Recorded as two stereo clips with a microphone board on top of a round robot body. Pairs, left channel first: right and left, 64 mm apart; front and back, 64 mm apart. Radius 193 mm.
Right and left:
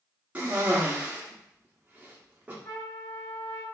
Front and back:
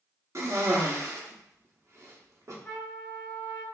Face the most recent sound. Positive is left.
turn(degrees=-65)